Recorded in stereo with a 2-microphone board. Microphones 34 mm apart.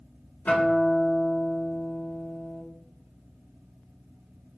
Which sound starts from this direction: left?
A guitar, at 0.5 s.